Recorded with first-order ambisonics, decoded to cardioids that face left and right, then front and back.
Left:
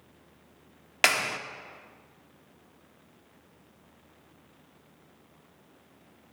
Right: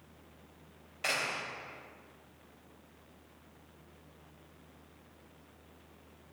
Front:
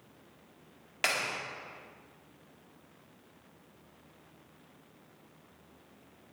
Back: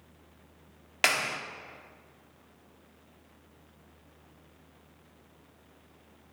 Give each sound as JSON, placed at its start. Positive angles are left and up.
{"t": 1.0, "sound": "a clap", "azimuth_deg": 110, "distance_m": 1.7}